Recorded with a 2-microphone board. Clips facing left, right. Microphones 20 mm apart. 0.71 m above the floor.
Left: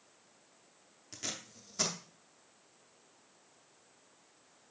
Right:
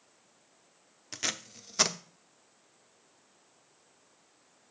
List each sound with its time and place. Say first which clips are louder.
1.1 s tape being pulled: right 7 dB; 40° right (ahead or behind), 0.6 m